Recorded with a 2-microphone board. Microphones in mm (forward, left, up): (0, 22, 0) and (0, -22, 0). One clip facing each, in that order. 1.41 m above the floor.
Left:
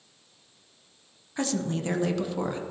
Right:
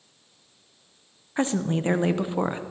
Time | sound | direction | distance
1.4 | a woman speaking | 30° right (ahead or behind) | 0.7 m